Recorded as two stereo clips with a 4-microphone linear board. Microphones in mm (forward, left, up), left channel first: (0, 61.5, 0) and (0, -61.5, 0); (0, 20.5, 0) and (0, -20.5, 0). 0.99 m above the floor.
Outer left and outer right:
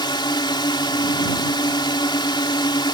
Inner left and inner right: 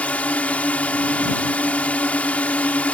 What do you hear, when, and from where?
0.0 s a drone: 40° left (ahead or behind)